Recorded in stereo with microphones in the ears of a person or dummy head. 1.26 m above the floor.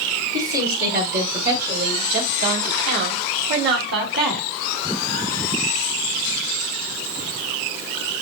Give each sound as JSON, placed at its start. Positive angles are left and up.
{"t": 0.3, "sound": "a woman speaking", "side_deg": -55, "distance_m": 4.5}